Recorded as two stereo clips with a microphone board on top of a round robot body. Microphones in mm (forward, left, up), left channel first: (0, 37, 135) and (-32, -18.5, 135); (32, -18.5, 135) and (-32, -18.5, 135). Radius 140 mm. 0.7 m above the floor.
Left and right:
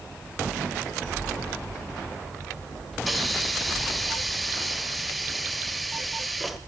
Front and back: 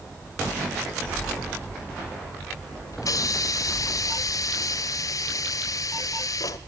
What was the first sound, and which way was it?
A hiss, 30° right.